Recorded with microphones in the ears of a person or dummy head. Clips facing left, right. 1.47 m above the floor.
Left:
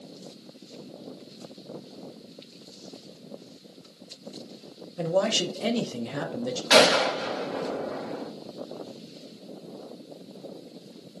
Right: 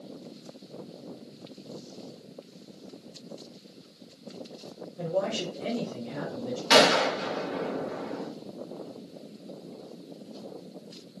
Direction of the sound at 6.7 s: 30° right (ahead or behind).